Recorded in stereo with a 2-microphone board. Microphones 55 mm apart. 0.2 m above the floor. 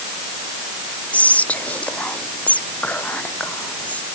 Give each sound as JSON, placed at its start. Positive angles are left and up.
{"t": 1.1, "sound": "whispering", "side_deg": 25}